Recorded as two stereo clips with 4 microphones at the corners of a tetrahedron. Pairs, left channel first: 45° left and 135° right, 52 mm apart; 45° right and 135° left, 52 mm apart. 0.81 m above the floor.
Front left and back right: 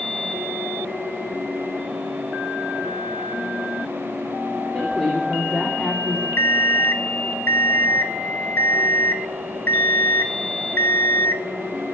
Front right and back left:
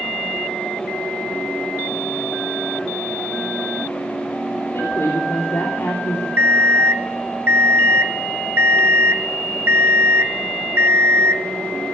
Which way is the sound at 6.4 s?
90° left.